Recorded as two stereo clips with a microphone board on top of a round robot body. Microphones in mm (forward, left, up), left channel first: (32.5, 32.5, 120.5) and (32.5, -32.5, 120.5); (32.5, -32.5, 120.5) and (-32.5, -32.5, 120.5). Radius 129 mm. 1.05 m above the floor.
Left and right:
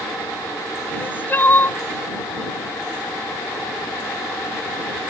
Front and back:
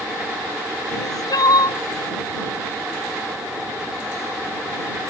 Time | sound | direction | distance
0.9 | crying | 30° left | ?